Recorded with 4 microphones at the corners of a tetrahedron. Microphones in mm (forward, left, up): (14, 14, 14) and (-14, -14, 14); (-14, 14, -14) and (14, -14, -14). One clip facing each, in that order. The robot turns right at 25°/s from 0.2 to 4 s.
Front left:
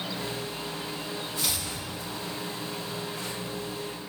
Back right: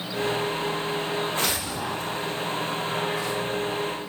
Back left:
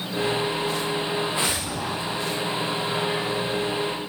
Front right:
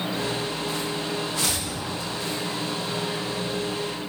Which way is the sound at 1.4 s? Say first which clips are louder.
Back right 6 dB, back left 2 dB; 45° right.